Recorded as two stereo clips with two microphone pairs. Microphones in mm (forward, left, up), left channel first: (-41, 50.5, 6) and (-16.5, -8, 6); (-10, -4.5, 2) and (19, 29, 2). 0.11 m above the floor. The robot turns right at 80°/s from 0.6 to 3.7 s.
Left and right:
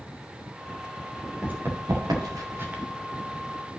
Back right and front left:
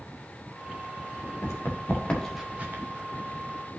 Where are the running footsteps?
140° right, 2.5 m; by 2.8 s 15° left, 2 m.